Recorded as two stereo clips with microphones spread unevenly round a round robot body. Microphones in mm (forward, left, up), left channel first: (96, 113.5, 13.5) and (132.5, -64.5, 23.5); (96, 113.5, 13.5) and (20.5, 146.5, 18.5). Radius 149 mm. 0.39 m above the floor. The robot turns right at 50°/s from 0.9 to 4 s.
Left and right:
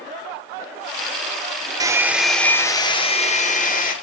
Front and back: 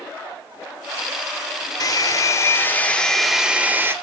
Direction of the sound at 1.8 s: 10° right.